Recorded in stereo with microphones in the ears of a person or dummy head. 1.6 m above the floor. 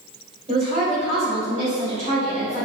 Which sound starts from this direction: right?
A woman speaking, at 0.5 s.